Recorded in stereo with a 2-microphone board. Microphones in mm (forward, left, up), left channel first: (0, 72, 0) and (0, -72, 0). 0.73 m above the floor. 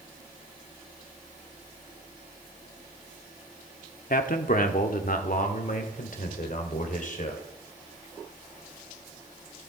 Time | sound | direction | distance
4.1 | a man speaking | 65° left (ahead or behind) | 1.4 m